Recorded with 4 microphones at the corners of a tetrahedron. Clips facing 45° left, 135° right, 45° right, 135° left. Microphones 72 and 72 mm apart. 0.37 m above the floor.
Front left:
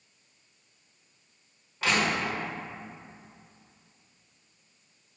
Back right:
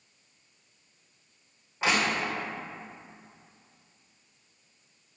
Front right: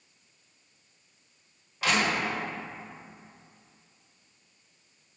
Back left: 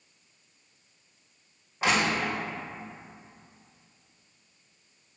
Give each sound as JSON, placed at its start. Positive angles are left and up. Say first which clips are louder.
{"t": 1.8, "sound": "crushing", "louder": "even, back left 1 dB", "azimuth_deg": 170, "distance_m": 1.6}